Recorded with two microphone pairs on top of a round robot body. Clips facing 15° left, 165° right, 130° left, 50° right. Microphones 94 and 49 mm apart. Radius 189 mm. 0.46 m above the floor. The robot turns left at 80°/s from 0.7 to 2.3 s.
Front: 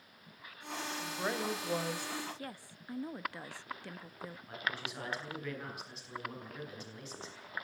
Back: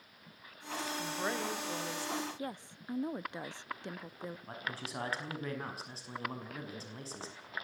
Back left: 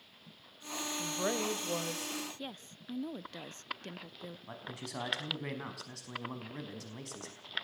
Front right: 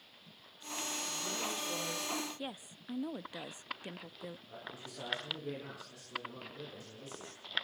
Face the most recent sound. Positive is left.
turn(degrees=140)